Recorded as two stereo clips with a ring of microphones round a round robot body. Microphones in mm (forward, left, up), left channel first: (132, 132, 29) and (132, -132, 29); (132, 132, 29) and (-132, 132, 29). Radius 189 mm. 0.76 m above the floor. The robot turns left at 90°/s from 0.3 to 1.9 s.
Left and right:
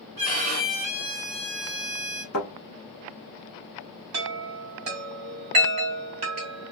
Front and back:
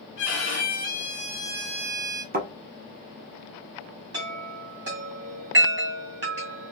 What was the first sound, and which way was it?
A violin, 55° right.